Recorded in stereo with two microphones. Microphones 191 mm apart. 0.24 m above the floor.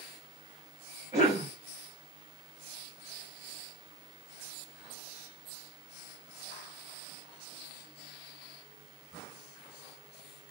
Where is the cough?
15° right (ahead or behind), 1.1 m.